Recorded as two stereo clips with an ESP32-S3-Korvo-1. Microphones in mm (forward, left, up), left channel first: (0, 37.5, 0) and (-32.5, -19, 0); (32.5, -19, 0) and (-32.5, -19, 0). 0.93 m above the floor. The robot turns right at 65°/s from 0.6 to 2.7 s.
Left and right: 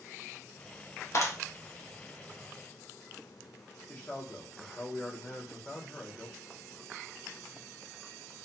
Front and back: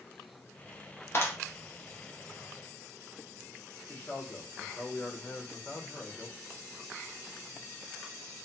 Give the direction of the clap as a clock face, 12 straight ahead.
11 o'clock.